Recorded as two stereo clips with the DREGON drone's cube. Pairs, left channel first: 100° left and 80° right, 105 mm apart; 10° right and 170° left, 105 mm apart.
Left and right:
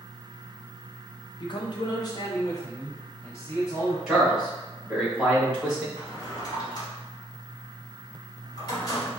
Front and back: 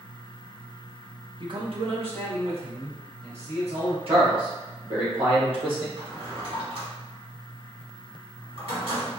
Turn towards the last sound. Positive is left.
turn(degrees=150)